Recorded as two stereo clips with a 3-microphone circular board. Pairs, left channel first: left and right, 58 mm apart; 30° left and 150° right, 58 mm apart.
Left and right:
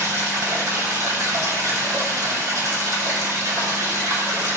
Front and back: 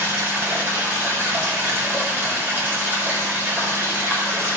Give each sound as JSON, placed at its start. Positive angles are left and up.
{"t": 0.0, "sound": "running water", "azimuth_deg": -95, "distance_m": 4.5}